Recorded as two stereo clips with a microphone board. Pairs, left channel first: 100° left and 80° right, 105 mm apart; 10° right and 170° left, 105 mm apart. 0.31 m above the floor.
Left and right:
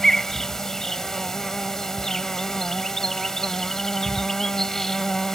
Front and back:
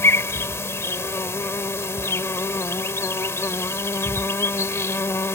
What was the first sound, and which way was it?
An insect, 20° left.